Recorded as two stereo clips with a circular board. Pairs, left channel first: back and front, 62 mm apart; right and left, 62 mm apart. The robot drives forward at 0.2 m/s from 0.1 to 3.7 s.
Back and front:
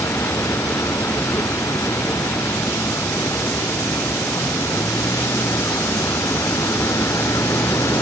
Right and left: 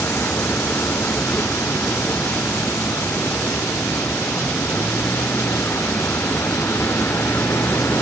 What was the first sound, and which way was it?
A vehicle, 140° right.